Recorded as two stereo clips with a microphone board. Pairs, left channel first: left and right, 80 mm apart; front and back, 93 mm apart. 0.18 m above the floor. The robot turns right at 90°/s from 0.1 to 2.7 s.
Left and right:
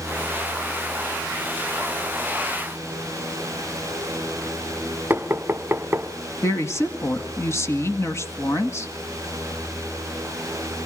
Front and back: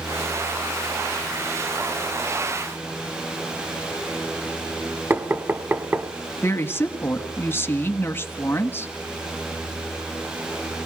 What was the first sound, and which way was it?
Knocking, 130° right.